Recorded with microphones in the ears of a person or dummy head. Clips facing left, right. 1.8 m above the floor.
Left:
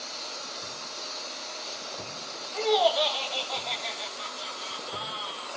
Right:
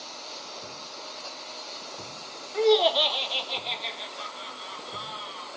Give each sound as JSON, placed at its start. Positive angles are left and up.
{"t": 2.5, "sound": "laughter", "side_deg": -40, "distance_m": 0.9}